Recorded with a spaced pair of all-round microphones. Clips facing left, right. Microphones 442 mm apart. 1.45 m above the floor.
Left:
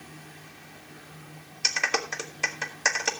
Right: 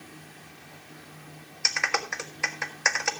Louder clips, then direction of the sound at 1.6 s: Left 2 dB; 50° left (ahead or behind).